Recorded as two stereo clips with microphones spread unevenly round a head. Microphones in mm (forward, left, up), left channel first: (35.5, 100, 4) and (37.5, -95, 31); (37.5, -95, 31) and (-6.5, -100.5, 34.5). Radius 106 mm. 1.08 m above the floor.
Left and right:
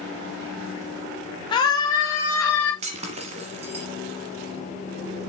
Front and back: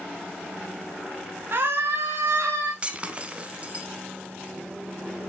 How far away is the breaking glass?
About 1.3 m.